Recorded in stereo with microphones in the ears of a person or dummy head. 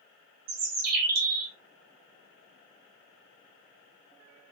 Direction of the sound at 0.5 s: 55° right (ahead or behind).